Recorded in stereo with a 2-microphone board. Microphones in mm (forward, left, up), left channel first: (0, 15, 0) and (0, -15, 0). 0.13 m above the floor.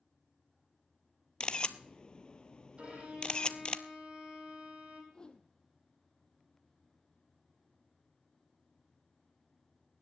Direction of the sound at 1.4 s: 35° left (ahead or behind).